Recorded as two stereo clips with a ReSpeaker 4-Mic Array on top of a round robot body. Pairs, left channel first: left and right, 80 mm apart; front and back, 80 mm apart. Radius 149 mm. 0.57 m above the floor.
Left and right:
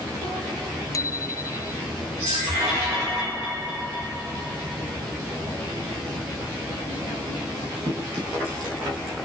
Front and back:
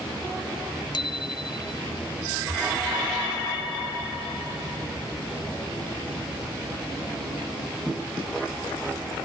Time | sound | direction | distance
0.9 | a bicycle bell | 35° left | ?